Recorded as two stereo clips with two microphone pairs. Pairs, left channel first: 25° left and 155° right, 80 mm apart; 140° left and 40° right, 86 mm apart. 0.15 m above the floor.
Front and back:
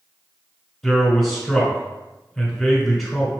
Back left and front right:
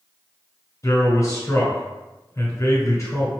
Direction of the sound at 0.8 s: 110° left.